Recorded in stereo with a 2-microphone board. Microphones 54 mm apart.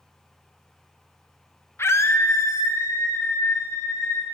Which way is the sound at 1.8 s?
55° left (ahead or behind).